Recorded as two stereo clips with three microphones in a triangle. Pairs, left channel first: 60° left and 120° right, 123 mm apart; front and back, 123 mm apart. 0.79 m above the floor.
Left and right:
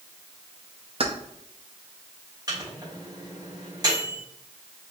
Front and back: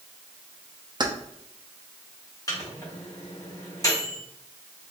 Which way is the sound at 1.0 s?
140° right.